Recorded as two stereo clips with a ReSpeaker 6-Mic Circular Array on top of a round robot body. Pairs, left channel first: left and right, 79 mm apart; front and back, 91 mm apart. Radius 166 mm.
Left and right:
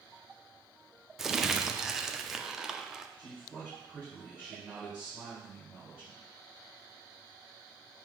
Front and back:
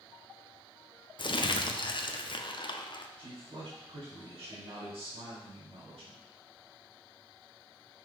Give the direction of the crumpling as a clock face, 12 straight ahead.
12 o'clock.